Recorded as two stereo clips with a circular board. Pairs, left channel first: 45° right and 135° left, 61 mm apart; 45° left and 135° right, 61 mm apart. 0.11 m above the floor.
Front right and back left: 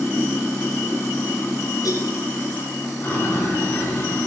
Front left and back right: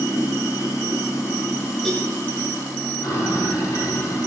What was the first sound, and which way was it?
Running water, 15° left.